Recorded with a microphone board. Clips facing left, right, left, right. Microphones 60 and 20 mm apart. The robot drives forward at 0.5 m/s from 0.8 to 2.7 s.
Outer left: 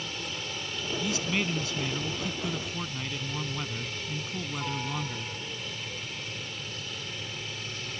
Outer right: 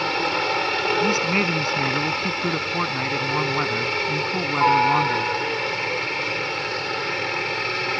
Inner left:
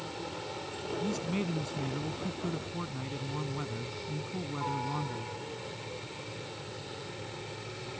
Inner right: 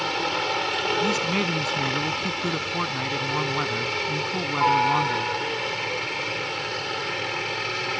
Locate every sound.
0.0 s a helicopter: 65° right (ahead or behind)
1.0 s a man speaking: 45° right (ahead or behind); by 5.4 s 50° right (ahead or behind)